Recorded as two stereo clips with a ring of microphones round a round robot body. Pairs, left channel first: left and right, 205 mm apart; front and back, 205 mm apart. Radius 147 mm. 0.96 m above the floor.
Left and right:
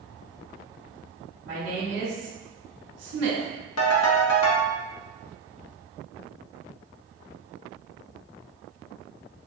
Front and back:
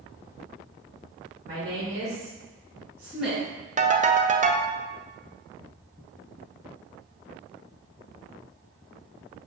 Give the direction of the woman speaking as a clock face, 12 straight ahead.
4 o'clock.